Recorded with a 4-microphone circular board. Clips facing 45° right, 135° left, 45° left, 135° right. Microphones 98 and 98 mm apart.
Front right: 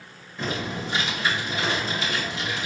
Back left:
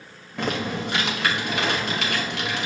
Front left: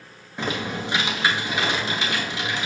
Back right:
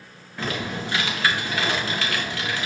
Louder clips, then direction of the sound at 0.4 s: Back left 3 dB, front left 1 dB; 115° left.